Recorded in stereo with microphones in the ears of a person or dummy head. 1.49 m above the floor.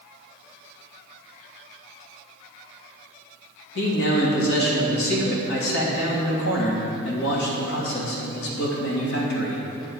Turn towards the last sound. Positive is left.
turn(degrees=85)